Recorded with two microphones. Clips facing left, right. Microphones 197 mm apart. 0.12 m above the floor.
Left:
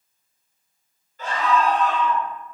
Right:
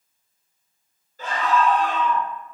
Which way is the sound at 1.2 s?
35° right (ahead or behind).